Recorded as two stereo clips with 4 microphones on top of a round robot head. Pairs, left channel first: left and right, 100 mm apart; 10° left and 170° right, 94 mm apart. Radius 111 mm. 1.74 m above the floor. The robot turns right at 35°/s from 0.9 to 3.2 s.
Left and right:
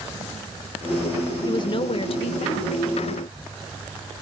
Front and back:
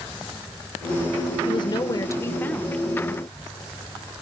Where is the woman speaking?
45° left, 1.7 m; by 2.8 s 90° left, 1.7 m.